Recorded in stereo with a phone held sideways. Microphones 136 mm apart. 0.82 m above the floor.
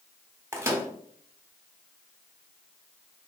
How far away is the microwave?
About 0.9 m.